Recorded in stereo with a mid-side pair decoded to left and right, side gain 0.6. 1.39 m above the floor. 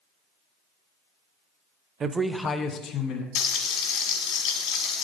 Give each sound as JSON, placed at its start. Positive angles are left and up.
{"t": 2.0, "sound": "a man speaking", "azimuth_deg": -40, "distance_m": 0.5}
{"t": 3.4, "sound": "frying", "azimuth_deg": 65, "distance_m": 1.3}